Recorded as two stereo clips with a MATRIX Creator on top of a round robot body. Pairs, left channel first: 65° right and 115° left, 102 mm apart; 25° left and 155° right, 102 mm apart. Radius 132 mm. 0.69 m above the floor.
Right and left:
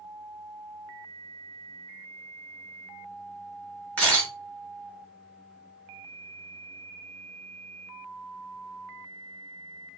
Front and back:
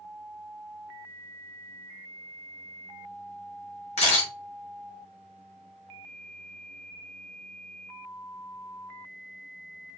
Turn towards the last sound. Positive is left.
turn(degrees=10)